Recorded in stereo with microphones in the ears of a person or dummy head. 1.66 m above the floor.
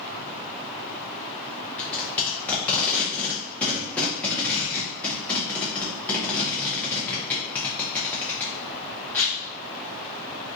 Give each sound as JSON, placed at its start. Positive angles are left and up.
{"t": 1.8, "sound": "tape being pulled", "side_deg": 5, "distance_m": 0.7}